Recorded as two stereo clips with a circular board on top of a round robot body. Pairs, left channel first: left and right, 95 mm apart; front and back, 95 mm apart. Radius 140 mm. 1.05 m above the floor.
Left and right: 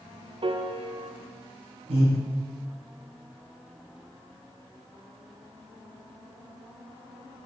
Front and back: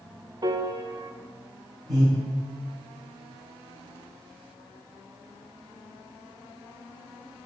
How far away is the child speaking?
I don't hear a child speaking.